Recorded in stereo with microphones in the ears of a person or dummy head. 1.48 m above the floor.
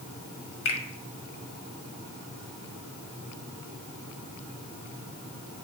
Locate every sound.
0.7 s a finger snap: 65° left (ahead or behind), 1.5 m